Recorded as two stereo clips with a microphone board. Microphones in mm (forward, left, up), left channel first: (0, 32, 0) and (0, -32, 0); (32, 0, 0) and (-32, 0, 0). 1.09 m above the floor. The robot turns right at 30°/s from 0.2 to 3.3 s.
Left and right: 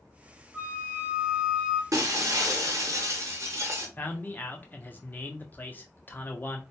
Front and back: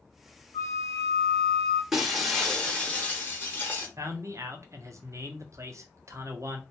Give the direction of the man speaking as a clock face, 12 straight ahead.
7 o'clock.